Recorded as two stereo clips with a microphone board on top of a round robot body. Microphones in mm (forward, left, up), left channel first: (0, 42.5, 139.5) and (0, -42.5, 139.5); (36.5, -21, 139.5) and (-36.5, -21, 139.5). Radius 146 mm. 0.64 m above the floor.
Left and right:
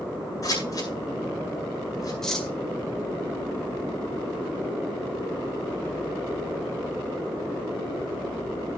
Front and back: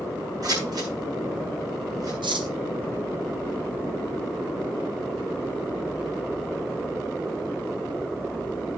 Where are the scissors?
140° left, 9 m.